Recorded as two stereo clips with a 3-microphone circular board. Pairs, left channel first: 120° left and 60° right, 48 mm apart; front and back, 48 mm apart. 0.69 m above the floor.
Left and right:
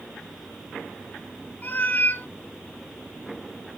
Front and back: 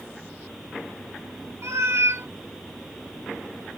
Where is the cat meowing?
170° left, 0.6 m.